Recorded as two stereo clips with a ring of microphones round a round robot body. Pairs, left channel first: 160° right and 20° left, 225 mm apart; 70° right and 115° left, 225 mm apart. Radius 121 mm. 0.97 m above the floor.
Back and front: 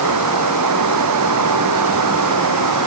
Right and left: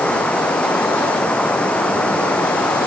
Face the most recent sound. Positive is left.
turn(degrees=20)